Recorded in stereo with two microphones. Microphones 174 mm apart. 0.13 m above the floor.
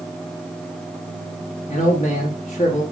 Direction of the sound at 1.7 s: 40° left (ahead or behind).